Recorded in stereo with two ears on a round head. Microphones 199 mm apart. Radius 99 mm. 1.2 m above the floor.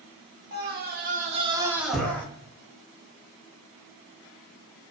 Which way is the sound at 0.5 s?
45° right (ahead or behind).